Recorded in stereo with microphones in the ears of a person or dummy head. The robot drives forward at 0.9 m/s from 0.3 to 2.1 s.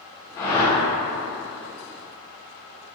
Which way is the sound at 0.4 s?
20° left (ahead or behind).